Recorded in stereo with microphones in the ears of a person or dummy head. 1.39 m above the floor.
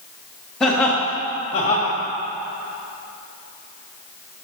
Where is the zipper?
No zipper in this recording.